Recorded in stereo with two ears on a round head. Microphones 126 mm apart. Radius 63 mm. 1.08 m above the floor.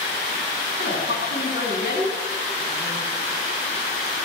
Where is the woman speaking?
85° left, 8.5 m.